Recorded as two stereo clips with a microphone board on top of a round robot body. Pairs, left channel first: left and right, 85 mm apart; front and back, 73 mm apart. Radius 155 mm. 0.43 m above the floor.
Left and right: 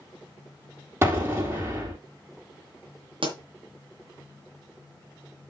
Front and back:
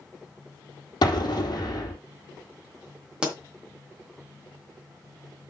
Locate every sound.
1.0 s an explosion: 25° right, 3 m
3.2 s a pop: 100° right, 2.5 m